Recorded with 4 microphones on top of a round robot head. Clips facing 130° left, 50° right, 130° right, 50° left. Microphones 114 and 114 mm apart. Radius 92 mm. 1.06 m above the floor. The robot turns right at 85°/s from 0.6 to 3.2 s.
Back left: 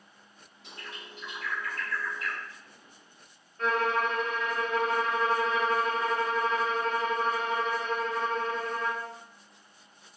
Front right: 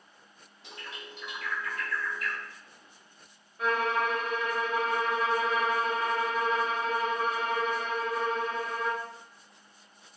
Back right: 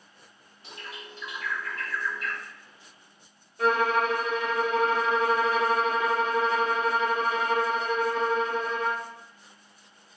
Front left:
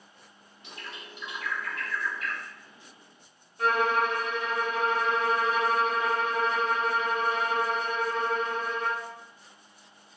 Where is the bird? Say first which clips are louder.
Front right 1 dB, back right 1 dB; 70° right, 1.3 m; by 2.4 s 80° left, 1.3 m.